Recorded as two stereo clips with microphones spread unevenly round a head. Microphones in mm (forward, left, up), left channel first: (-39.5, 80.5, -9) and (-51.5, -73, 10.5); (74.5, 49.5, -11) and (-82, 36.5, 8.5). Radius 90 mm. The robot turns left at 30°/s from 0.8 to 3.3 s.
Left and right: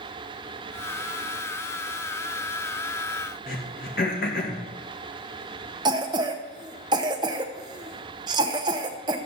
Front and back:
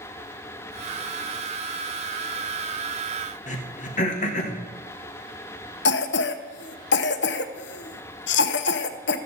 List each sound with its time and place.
3.5 s throat clearing: 45° left, 1.6 m
5.8 s a cough: 25° right, 0.7 m